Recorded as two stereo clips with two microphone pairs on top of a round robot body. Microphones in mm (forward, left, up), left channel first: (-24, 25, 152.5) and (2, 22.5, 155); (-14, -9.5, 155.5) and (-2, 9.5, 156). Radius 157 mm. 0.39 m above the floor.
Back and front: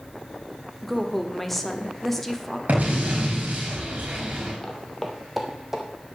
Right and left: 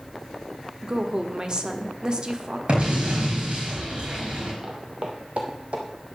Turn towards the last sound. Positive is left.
turn(degrees=75)